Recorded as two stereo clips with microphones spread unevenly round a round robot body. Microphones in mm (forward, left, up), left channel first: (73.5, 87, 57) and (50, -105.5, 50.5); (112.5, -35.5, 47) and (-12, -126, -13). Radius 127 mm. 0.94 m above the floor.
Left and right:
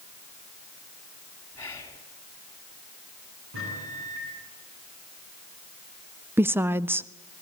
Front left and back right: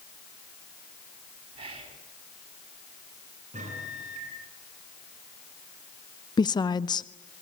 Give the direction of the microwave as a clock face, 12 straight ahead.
4 o'clock.